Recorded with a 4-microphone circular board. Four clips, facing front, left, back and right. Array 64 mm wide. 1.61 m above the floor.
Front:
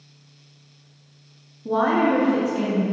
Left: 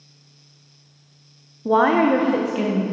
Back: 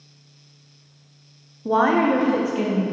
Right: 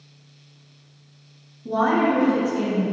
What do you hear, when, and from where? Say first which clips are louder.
1.6 s a woman speaking: left 4 dB, back 2 dB; 115° left, 1.1 m; by 2.8 s 100° left, 2 m